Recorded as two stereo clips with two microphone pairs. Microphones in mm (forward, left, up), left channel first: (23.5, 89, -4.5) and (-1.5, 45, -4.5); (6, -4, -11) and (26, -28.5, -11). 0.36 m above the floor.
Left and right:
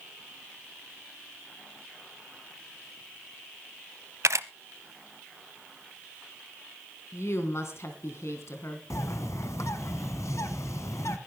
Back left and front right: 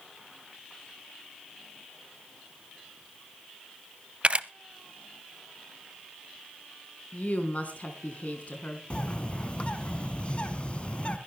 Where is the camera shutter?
100° right, 0.6 m.